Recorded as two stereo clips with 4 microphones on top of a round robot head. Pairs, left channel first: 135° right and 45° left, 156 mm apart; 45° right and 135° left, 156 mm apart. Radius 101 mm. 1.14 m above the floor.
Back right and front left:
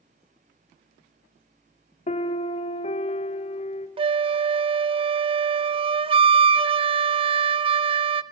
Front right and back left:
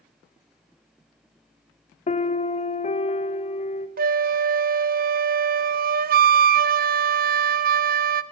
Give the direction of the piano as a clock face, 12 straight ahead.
3 o'clock.